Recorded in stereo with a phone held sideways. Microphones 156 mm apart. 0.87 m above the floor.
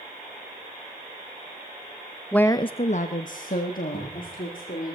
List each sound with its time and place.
2.3 s a woman speaking: 5° left (ahead or behind), 0.6 m; by 4.9 s 65° left (ahead or behind), 2.5 m
3.9 s a cupboard door: 35° left (ahead or behind), 6.5 m